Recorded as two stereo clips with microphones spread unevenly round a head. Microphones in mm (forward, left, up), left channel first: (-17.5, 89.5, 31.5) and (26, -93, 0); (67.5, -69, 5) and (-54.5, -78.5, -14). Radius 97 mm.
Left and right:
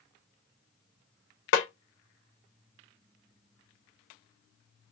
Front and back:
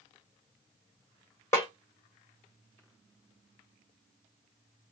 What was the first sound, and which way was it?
A snare drum, 85° left.